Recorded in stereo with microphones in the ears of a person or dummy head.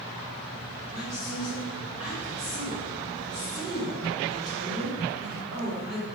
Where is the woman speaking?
15° right (ahead or behind), 1.4 m.